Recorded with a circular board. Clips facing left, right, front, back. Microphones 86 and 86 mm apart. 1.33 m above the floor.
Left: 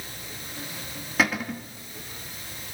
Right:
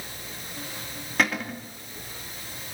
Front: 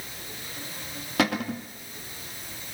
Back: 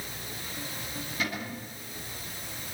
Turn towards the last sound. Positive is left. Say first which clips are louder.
# left 1 dB, front 10 dB
turn(degrees=5)